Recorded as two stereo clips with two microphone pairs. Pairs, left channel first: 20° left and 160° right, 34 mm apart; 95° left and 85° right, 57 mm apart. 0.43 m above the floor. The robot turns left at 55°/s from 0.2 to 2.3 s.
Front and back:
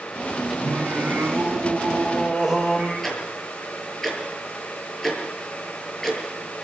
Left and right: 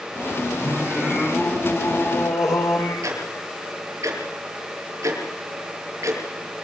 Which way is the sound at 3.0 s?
65° right.